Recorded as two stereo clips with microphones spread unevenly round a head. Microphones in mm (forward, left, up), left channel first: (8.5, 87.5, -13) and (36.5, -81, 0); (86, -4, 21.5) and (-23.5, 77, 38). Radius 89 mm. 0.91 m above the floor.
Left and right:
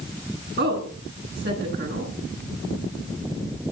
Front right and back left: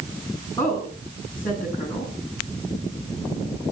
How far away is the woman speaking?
About 9 m.